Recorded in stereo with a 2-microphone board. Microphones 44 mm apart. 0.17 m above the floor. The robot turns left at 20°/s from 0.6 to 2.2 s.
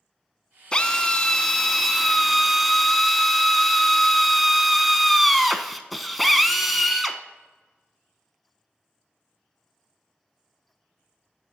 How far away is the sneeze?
No sneeze in this recording.